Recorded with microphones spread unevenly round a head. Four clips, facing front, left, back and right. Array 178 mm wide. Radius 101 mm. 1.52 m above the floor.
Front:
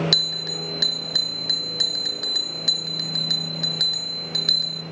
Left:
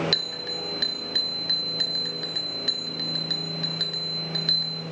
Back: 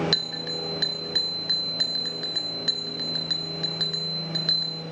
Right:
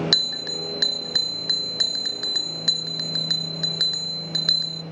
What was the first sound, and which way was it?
A bell, 85° right.